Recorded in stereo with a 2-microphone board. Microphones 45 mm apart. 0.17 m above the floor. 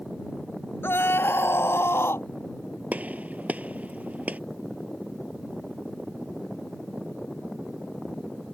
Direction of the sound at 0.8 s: 65° left (ahead or behind).